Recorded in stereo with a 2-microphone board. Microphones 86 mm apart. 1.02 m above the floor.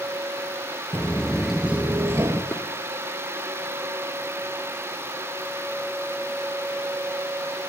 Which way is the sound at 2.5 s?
30° left (ahead or behind).